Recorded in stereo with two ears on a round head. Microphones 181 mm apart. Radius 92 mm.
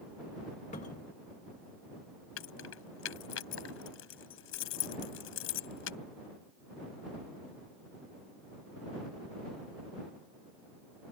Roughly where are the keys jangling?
Left.